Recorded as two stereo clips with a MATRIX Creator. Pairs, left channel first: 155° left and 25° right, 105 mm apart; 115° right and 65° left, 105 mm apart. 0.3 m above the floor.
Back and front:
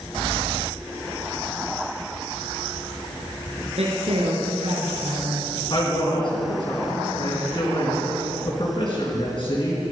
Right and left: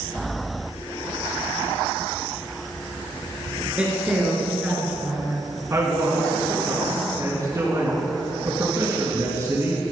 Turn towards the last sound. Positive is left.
turn(degrees=130)